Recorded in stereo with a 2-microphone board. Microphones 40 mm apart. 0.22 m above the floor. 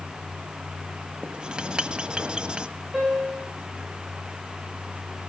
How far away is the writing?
About 1.3 m.